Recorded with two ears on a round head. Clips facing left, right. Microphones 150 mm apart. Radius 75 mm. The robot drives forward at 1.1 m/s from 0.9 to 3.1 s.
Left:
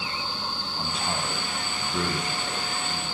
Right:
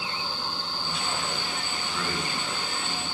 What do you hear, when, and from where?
0.8 s a man speaking: 35° left (ahead or behind), 4 m; by 3.0 s 20° left (ahead or behind), 6 m